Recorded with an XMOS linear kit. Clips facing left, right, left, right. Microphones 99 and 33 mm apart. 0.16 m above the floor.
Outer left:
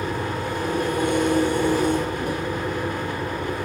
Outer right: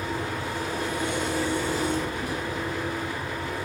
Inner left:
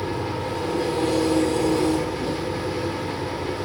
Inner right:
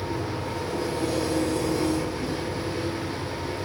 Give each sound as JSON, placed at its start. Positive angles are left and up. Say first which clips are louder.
{"t": 0.0, "sound": "an engine running", "louder": "outer left 4 dB, inner left 3 dB", "side_deg": 50, "distance_m": 1.4}